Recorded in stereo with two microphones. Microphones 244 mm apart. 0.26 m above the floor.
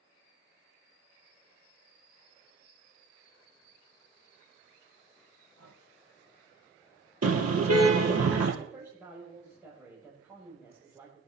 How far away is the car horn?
About 3 m.